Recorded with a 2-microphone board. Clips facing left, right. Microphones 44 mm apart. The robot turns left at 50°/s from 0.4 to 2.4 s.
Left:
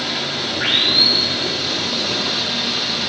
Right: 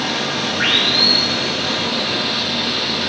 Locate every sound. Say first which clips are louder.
0.0 s running water: right 3 dB; 75° right, 5.5 m; by 3.1 s 175° right, 5.5 m